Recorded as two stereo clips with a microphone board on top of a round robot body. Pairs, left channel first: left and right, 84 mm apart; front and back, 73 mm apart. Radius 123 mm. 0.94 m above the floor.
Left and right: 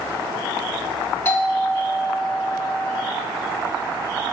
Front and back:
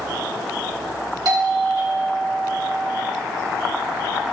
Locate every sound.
1.2 s a doorbell: 150° left, 3 m